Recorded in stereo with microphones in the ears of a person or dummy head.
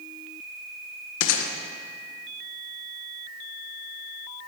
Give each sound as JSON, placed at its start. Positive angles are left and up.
{"t": 1.2, "sound": "a gunshot", "side_deg": 70, "distance_m": 1.3}